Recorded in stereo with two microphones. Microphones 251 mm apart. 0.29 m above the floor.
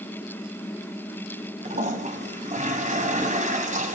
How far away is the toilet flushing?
About 2 m.